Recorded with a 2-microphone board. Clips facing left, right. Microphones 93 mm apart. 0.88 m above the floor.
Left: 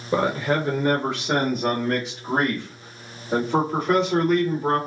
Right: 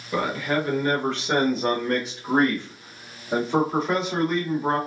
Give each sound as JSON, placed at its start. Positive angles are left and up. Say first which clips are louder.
{"t": 0.1, "sound": "a man speaking", "louder": "left 3 dB", "side_deg": 30, "distance_m": 0.6}